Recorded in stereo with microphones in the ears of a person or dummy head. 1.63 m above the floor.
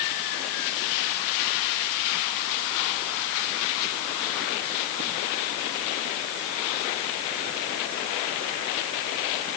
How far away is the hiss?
I don't hear a hiss.